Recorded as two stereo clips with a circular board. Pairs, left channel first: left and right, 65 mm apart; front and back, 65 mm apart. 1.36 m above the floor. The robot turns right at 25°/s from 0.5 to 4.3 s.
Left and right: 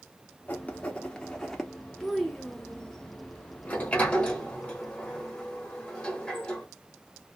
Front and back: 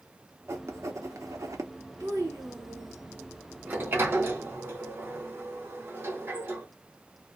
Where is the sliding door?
140° left, 1.2 m; by 6.7 s 155° left, 1.2 m.